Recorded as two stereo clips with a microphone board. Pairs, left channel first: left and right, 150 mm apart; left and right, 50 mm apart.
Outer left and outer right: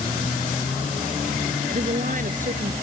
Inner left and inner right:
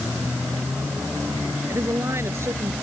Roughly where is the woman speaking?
Right.